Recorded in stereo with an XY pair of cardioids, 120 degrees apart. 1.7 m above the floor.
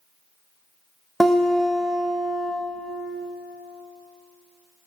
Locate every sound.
1.2 s a guitar: 5° left, 1.7 m